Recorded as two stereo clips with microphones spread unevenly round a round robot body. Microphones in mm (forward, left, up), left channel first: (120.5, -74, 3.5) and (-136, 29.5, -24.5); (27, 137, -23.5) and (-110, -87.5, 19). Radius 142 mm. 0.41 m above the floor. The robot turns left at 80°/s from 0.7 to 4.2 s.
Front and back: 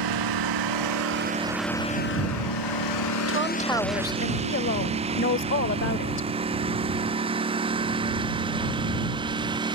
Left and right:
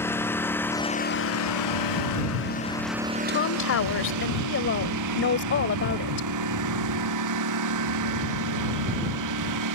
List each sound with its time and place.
0.0 s a lawn mower: 140° left; by 9.8 s 130° right
3.3 s a woman speaking: 100° left; by 6.3 s 25° left